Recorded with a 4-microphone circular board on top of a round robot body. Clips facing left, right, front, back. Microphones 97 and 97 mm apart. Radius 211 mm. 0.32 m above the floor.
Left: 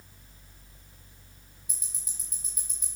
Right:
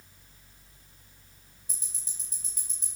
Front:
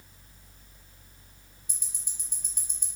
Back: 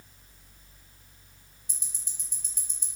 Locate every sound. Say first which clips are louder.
1.7 s ticking: even, even; 35° right, 3.5 m